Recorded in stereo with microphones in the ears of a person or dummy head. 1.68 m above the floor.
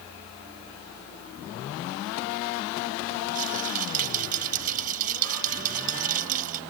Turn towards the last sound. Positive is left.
turn(degrees=-45)  # may be behind; listen again after turning